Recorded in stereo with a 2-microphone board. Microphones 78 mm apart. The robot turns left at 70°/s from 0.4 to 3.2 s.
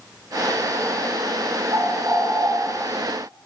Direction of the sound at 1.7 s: 120° right.